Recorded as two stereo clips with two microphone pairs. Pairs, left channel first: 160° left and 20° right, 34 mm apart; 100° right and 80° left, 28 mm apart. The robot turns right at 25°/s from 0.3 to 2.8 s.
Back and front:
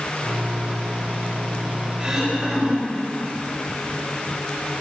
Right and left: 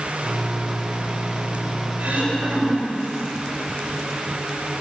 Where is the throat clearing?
45° left, 3.5 m; by 3.0 s 65° left, 3.5 m.